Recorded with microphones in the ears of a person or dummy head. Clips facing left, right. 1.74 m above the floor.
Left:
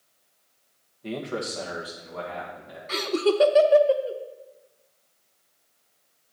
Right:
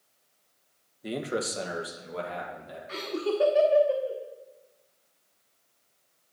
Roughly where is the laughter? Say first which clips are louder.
Left 7 dB; left.